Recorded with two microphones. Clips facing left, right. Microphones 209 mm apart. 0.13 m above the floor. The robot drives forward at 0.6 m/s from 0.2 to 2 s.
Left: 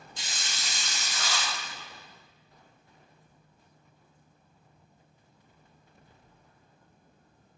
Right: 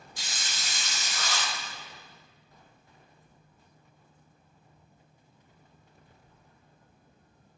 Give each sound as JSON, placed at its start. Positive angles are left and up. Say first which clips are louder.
{"t": 0.2, "sound": "a hiss", "louder": "even", "side_deg": 20, "distance_m": 1.0}